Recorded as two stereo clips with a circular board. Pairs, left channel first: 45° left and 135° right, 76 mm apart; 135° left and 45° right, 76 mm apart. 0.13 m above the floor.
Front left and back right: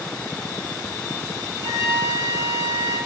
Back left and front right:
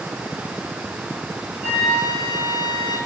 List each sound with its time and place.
1.6 s a flute: 120° right, 2.0 m